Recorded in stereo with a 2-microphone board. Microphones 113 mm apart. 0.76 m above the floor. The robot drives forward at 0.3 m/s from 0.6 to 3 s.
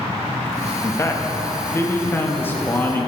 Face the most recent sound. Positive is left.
turn(degrees=15)  # may be behind; listen again after turning